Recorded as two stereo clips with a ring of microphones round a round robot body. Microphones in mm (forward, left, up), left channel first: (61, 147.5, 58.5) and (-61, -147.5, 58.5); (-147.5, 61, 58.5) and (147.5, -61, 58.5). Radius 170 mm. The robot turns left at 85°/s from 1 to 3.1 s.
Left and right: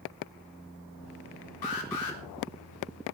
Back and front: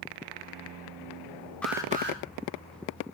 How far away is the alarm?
About 3.5 m.